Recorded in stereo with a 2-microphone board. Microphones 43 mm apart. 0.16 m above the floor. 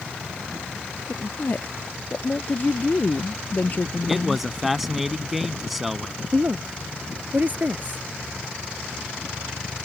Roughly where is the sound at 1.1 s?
Left.